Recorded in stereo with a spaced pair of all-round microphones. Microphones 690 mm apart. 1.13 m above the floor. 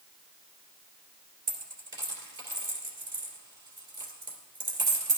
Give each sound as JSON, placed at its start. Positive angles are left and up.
{"t": 1.5, "sound": "a dropped coin", "side_deg": -80, "distance_m": 2.5}